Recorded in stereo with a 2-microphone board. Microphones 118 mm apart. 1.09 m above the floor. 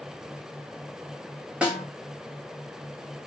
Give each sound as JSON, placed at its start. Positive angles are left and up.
{"t": 1.6, "sound": "a snare drum", "side_deg": -10, "distance_m": 1.0}